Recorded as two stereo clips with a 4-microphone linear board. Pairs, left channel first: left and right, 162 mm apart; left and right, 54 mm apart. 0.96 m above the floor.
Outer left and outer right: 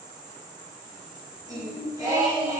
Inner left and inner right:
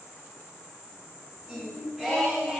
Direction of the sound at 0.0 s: 25° right (ahead or behind).